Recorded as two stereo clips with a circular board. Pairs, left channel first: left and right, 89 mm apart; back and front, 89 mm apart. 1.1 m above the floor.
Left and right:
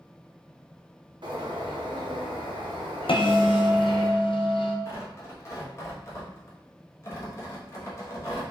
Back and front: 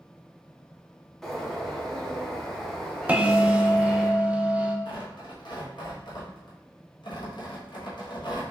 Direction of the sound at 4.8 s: 150° left.